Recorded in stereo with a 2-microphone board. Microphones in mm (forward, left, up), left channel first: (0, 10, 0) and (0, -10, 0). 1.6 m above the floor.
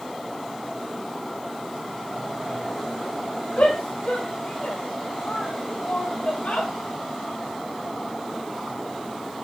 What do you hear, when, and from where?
3.6 s a shout: 70° left (ahead or behind), 5 m; by 6.7 s 90° left, 5.5 m